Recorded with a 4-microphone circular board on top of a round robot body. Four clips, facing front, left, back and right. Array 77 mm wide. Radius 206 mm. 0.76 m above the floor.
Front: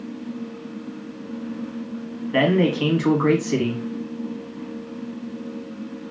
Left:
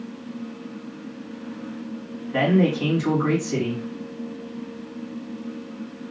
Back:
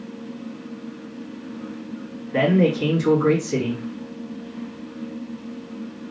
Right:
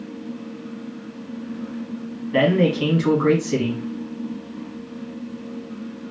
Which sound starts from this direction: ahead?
A man speaking, at 2.3 s.